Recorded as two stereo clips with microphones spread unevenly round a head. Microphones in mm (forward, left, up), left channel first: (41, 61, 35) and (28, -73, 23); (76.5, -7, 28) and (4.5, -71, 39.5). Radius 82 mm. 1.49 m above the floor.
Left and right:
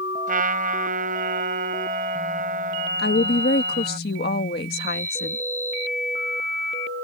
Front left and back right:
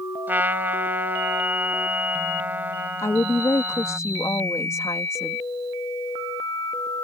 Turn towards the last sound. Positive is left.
turn(degrees=115)